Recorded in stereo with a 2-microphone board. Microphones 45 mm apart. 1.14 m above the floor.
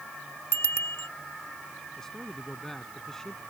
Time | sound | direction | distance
0.5 | a bicycle bell | 75° left (ahead or behind) | ?
2.0 | a man speaking | 10° left (ahead or behind) | ?